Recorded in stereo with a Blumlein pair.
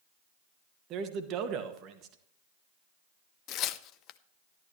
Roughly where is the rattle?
I don't hear a rattle.